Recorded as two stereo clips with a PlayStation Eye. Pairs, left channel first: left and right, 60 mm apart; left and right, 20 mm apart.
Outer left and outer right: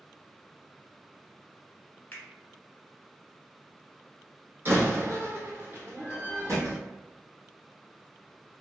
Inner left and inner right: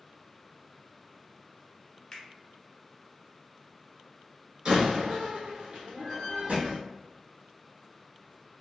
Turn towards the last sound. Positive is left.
turn(degrees=-55)  # may be behind; listen again after turning